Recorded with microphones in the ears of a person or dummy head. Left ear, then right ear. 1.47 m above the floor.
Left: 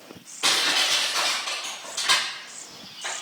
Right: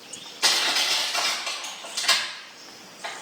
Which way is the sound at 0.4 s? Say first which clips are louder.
Even; 80° right.